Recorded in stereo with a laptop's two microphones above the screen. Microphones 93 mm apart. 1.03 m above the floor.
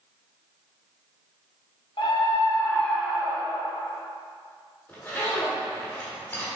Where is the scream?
65° left (ahead or behind), 0.8 m; by 3.7 s 45° right (ahead or behind), 0.7 m.